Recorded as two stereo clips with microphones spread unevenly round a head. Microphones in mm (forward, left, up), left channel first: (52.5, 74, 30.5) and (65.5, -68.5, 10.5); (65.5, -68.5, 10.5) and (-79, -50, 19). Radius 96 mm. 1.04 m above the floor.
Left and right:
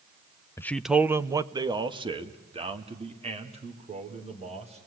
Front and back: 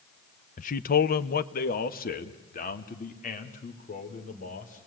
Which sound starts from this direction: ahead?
A man speaking, at 0.6 s.